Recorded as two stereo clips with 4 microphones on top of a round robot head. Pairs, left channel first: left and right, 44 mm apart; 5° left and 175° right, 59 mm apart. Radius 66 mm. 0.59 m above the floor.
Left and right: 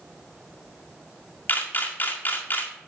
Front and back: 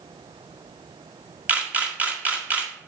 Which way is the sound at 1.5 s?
125° left.